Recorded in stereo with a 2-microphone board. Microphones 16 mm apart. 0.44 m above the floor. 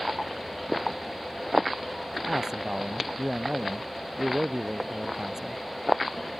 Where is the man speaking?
35° right (ahead or behind).